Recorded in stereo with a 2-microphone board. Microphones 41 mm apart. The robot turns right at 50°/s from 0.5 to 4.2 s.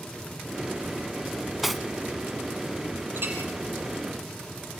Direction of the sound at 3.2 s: 60° right (ahead or behind).